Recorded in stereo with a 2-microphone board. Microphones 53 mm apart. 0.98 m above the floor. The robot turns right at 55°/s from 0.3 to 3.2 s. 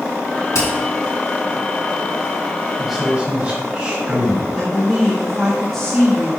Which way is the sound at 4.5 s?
5° left (ahead or behind).